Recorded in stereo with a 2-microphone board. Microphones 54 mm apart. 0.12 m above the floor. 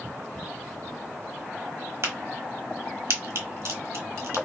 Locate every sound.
2.0 s a crack: 60° right (ahead or behind), 1.1 m